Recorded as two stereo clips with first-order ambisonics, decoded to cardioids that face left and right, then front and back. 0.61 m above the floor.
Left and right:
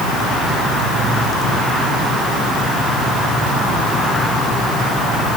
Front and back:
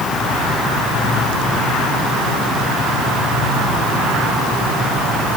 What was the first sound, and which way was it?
Only background noise.